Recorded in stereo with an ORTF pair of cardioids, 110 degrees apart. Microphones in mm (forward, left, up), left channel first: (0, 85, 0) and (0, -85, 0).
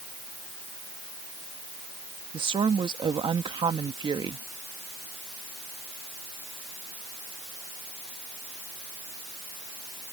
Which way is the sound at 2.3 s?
30° right.